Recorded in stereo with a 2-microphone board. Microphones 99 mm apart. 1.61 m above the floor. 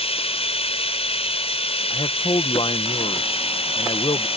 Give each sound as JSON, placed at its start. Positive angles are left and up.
{"t": 0.0, "sound": "running water", "side_deg": 85}
{"t": 1.9, "sound": "a man speaking", "side_deg": 60}